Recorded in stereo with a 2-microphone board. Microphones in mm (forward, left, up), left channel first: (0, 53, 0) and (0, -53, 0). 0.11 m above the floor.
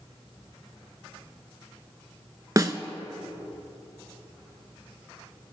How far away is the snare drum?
About 0.7 m.